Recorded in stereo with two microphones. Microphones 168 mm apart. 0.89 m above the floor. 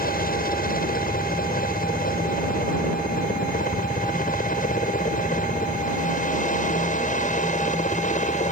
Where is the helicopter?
60° left (ahead or behind); by 8.5 s 50° left (ahead or behind).